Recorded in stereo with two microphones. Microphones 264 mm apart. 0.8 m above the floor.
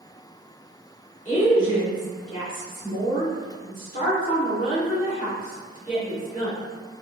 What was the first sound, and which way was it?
A woman speaking, 30° left (ahead or behind).